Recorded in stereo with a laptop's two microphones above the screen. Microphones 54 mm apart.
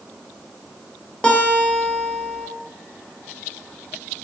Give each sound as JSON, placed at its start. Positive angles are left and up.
{"t": 1.2, "sound": "a guitar", "side_deg": 20, "distance_m": 0.7}